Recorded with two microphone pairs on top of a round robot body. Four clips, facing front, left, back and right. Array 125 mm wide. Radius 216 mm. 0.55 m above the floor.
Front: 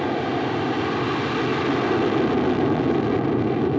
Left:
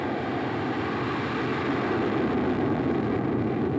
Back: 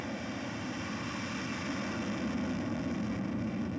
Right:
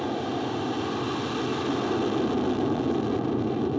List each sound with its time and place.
0.0 s an aircraft: straight ahead